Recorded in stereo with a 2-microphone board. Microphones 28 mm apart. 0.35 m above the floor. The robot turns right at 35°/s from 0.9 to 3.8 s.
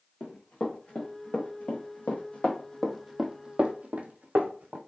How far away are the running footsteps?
About 1.8 m.